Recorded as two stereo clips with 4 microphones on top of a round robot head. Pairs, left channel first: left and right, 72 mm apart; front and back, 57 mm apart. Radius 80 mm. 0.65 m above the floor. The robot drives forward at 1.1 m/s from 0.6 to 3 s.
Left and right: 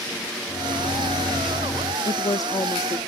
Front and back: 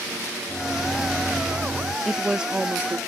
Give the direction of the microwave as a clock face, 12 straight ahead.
10 o'clock.